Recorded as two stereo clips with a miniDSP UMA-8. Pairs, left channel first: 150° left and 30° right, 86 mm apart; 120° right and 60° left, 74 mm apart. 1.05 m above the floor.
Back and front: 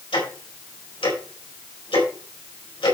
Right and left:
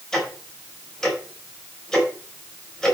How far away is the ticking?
About 4.5 m.